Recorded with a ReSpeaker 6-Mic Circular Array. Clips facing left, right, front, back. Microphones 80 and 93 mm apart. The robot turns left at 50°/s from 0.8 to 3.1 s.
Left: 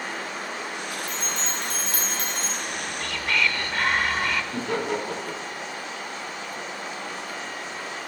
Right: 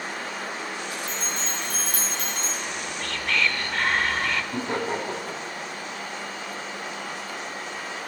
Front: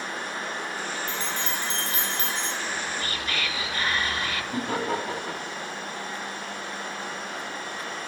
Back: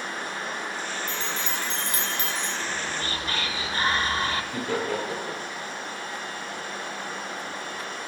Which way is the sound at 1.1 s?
110° left.